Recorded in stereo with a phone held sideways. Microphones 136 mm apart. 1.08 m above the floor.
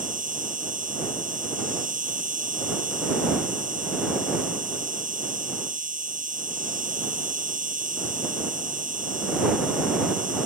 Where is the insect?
80° right.